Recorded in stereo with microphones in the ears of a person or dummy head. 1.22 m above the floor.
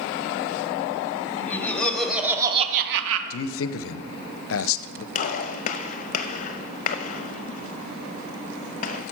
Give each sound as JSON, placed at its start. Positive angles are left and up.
{"t": 1.4, "sound": "laughter", "side_deg": 10, "distance_m": 1.9}
{"t": 3.3, "sound": "a man speaking", "side_deg": 65, "distance_m": 0.6}
{"t": 5.2, "sound": "a gunshot", "side_deg": 45, "distance_m": 0.7}